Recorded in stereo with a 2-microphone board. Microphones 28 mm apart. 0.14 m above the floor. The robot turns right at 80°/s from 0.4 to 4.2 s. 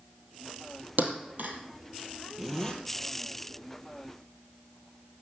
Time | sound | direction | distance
1.0 | a thud | 70° right (ahead or behind) | 2 m
2.4 | a zipper | 5° right | 1.7 m